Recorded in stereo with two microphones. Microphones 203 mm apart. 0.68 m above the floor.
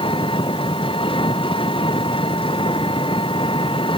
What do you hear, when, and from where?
0.0 s an engine running: 25° left (ahead or behind)